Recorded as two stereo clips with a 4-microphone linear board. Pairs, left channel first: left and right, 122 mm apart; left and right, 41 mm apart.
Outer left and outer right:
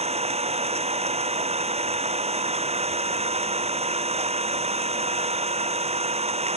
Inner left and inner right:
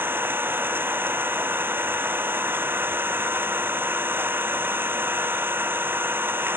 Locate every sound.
0.0 s an engine running: 60° right (ahead or behind)